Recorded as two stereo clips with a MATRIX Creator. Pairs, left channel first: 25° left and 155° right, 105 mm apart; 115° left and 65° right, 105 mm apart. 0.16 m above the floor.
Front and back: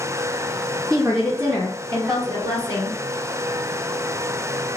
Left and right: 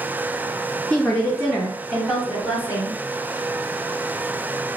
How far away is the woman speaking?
About 1.7 m.